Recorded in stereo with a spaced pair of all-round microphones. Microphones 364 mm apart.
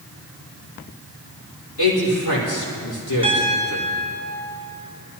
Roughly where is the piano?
Left.